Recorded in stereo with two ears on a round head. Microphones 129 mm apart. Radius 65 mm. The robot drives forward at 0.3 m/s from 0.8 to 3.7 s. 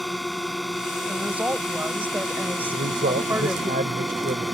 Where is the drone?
Centre (ahead or behind).